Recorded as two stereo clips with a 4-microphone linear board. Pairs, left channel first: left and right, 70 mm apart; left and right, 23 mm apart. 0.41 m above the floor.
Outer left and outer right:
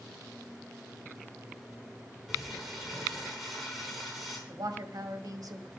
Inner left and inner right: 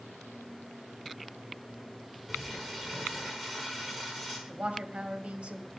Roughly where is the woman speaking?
Right.